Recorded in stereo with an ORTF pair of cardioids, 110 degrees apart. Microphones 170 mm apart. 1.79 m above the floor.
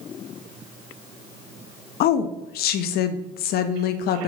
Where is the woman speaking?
70° left, 0.5 m.